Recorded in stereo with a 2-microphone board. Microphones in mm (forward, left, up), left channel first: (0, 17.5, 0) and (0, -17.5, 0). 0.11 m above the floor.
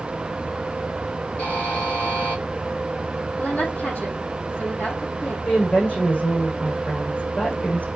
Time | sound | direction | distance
1.4 | a buzzer | 80° left | 7 m
3.4 | a woman speaking | 70° left (ahead or behind) | 4 m
5.5 | a woman speaking | 70° left (ahead or behind) | 6.5 m